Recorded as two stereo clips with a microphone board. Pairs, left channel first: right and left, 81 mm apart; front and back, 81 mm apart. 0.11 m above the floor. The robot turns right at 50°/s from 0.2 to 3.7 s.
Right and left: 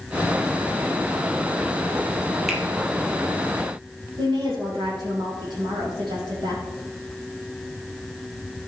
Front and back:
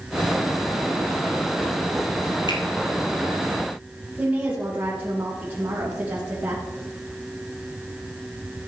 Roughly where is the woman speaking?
Left.